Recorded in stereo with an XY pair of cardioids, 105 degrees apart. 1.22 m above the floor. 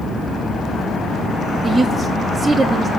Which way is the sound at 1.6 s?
25° right.